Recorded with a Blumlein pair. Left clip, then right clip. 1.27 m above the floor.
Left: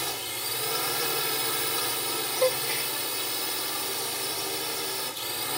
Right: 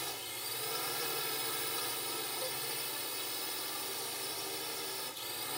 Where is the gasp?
40° left.